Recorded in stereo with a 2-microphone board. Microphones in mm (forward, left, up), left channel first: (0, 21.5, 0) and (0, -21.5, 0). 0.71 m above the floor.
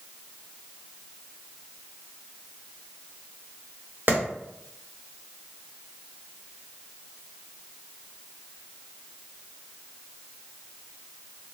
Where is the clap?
55° right (ahead or behind), 1.1 m.